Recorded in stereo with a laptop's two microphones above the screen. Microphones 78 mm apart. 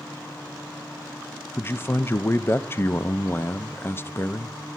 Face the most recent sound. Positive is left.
turn(degrees=30)  # may be behind; listen again after turning